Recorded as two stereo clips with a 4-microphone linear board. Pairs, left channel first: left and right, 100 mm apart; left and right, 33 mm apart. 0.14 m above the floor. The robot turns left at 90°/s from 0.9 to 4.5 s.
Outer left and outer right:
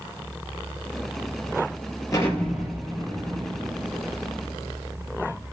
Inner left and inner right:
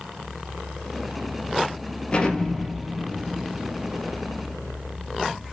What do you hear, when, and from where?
2.1 s an explosion: 35° left (ahead or behind), 3.5 m; by 5.4 s 5° right (ahead or behind), 3.5 m